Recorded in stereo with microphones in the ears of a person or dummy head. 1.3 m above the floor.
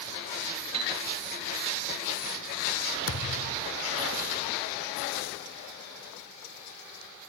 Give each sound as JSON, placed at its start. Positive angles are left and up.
{"t": 0.7, "sound": "a piano", "side_deg": -30}
{"t": 3.1, "sound": "a thud", "side_deg": 70}